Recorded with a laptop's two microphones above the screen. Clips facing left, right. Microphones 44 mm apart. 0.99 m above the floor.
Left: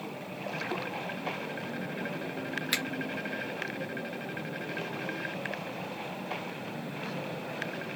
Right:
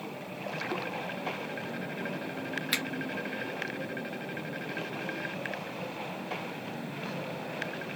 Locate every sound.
2.7 s a finger snap: 5° right (ahead or behind), 0.7 m